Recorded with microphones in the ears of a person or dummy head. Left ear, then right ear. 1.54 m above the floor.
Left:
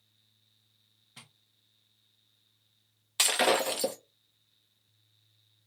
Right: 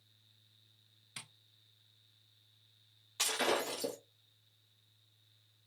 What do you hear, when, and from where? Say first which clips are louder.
1.2 s tapping: right 3 dB; 45° right (ahead or behind), 1.0 m
3.2 s breaking glass: left 8 dB; 30° left (ahead or behind), 0.9 m